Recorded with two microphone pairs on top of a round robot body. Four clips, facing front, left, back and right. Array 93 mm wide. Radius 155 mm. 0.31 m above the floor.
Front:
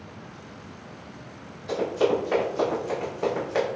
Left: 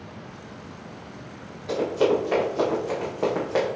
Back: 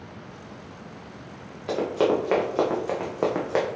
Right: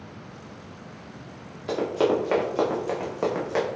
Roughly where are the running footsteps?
Behind right.